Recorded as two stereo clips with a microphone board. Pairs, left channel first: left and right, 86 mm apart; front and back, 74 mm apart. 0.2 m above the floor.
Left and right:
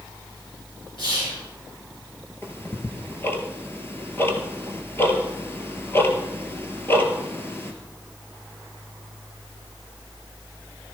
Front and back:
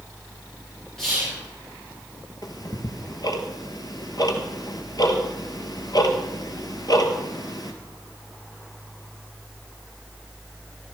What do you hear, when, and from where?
1.0 s whispering: 85° left, 3.5 m
2.4 s ticking: 30° left, 1.5 m